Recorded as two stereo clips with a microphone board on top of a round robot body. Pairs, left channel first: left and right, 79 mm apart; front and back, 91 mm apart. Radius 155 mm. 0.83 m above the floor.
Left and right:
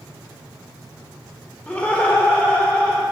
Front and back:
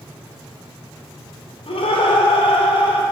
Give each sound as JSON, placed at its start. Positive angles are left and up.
{"t": 1.7, "sound": "laughter", "azimuth_deg": 15, "distance_m": 2.5}